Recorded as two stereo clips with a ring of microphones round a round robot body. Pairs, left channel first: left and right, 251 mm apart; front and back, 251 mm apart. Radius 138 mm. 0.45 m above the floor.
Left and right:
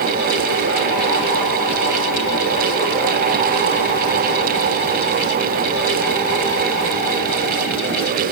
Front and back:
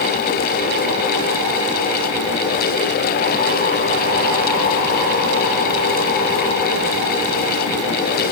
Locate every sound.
Only background noise.